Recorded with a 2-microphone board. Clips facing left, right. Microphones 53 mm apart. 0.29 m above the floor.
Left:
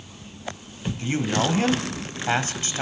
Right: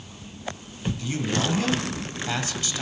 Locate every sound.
1.0 s a man speaking: 40° left (ahead or behind), 1.5 m